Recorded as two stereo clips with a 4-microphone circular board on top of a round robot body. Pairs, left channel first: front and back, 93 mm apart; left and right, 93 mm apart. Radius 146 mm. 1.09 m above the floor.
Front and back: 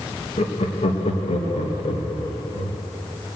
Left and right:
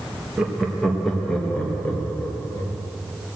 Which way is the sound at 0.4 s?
10° right.